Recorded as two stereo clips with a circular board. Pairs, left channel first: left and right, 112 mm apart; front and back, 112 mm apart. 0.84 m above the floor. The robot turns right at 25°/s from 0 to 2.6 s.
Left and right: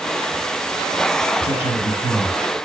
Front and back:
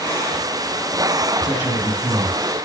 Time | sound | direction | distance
1.4 | a man speaking | 120° left | 7 m